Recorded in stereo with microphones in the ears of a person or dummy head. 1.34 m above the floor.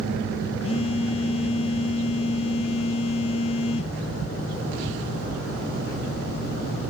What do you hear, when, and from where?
0.6 s a phone buzzing: 30° left (ahead or behind), 0.7 m